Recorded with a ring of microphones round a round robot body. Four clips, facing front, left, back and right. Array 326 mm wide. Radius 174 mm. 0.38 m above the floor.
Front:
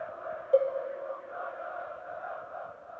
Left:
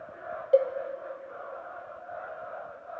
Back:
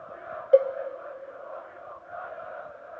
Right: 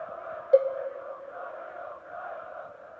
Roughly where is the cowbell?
Behind.